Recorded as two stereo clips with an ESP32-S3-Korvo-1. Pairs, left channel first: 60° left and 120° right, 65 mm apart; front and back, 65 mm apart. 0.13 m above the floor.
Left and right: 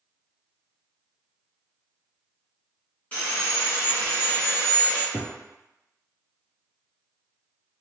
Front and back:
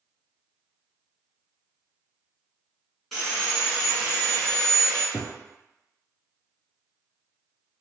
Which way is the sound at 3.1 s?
85° left.